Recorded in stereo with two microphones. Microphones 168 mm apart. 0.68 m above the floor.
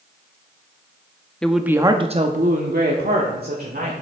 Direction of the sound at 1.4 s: 5° left (ahead or behind).